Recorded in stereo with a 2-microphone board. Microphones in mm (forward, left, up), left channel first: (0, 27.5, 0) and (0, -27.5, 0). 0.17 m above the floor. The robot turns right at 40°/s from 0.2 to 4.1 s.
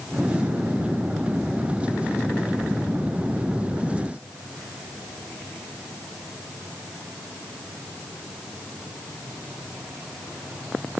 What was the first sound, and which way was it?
Only background noise.